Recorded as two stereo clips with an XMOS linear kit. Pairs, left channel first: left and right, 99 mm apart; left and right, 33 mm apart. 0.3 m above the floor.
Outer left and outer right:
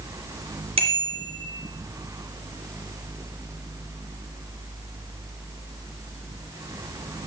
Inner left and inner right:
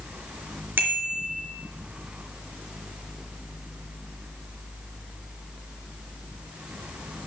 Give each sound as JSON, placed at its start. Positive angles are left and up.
{"t": 0.8, "sound": "a bicycle bell", "side_deg": -75, "distance_m": 3.5}